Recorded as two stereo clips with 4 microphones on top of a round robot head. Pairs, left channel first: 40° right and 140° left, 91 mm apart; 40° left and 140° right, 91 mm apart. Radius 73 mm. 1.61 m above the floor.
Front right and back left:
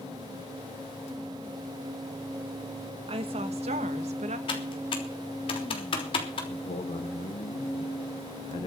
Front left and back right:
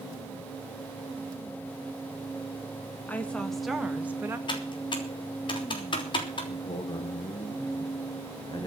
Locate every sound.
3.1 s a woman speaking: 110° left, 2.5 m; by 4.4 s 150° left, 2 m
4.5 s typing on a keyboard: straight ahead, 3.5 m
6.5 s a man speaking: 10° right, 1.8 m